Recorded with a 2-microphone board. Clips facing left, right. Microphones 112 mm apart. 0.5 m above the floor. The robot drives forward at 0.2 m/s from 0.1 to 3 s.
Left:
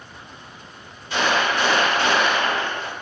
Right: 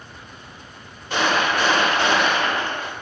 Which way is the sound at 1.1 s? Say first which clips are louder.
Right 1 dB; 50° right (ahead or behind).